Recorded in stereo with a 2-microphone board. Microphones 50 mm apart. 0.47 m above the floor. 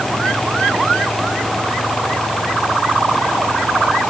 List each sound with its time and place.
Only background noise.